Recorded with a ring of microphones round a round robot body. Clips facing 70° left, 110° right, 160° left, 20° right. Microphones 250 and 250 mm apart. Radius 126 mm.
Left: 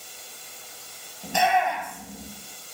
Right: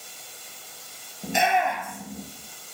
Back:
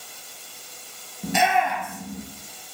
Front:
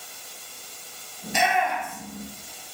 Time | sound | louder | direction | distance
1.2 | a shout | even, back 3 dB | 175° left | 8 m